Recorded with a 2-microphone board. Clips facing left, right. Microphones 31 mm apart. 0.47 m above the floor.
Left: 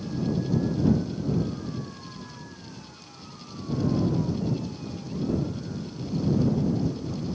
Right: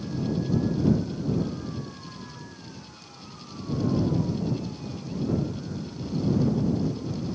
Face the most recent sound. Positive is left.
No sound to turn to.